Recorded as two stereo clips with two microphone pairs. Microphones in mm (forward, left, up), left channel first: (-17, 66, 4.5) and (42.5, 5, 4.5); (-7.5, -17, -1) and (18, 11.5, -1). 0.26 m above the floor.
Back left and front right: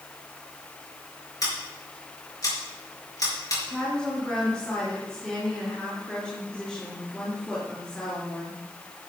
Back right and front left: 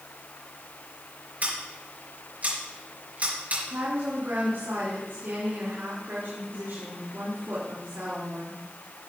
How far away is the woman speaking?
About 3.5 m.